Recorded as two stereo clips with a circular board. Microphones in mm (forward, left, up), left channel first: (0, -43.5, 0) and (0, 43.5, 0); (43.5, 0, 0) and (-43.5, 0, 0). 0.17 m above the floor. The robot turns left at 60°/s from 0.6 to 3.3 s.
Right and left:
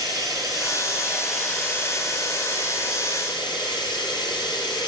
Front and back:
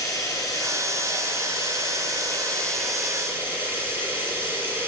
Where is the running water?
45° left, 3.5 m; by 4.9 s 115° right, 3.5 m.